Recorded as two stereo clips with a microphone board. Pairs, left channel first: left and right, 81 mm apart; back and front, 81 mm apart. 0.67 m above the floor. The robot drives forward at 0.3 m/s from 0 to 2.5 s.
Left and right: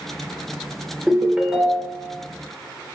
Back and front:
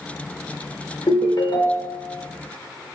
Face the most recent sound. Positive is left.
turn(degrees=-175)